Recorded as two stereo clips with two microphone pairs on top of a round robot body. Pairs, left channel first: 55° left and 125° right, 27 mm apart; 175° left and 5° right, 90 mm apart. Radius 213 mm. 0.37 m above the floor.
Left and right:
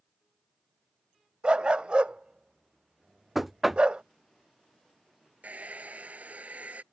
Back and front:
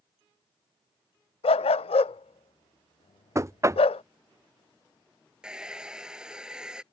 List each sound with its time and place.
1.4 s a dog barking: 175° right
3.4 s knocking: 35° right
5.4 s a hair dryer: 85° right